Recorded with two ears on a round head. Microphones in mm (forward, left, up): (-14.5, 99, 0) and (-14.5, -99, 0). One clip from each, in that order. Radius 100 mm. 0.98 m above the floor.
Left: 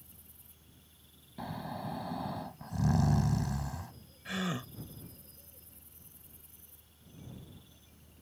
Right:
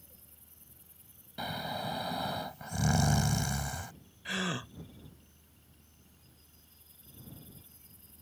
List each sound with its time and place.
1.4 s snoring: 70° right (ahead or behind)
4.2 s a gasp: 25° right (ahead or behind)